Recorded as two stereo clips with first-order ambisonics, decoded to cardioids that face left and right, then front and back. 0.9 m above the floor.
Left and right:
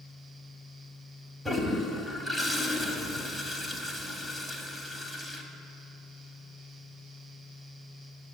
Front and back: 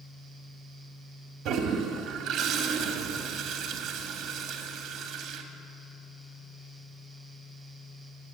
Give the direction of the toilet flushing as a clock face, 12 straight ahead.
6 o'clock.